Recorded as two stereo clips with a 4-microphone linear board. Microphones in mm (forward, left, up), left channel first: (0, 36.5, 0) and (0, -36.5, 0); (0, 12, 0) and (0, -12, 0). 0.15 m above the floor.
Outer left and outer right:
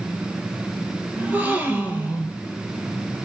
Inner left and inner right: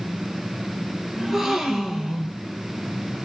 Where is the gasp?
20° right (ahead or behind), 0.5 m.